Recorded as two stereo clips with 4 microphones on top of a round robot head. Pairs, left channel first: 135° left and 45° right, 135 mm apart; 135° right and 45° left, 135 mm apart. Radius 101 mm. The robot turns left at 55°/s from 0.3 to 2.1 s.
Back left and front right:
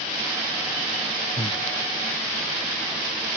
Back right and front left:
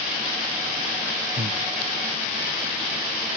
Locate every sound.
1.4 s breathing: 85° left, 0.5 m; by 1.6 s 70° left, 0.5 m